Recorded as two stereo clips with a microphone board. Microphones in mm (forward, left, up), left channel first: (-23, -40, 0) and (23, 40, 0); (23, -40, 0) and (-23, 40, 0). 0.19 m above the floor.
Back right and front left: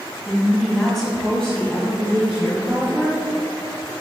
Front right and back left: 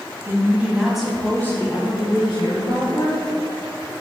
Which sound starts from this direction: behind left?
A woman speaking, at 0.2 s.